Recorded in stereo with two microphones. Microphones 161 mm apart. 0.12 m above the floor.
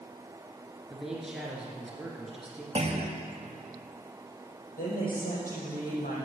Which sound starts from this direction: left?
A woman speaking, at 4.8 s.